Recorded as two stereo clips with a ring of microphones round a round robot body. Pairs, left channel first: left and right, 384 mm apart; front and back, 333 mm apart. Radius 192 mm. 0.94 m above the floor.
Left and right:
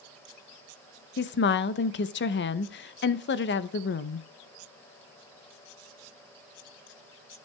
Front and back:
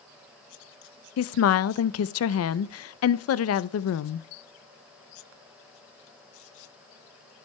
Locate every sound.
1.2 s a woman speaking: 35° left, 0.6 m